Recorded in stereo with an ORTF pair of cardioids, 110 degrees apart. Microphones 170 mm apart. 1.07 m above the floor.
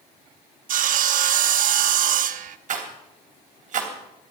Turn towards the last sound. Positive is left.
turn(degrees=-50)